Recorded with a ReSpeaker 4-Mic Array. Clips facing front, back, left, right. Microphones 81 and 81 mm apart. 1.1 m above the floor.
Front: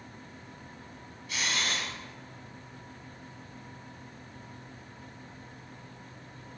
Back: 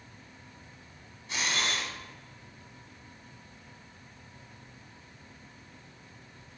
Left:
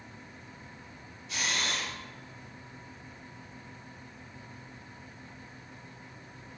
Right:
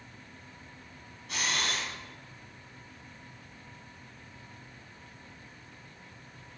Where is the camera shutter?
125° right, 1.2 m.